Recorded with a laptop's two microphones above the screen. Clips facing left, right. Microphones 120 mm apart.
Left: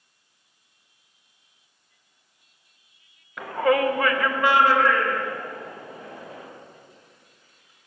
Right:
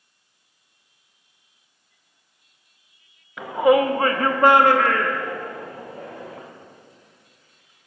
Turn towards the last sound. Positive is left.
turn(degrees=-75)  # may be behind; listen again after turning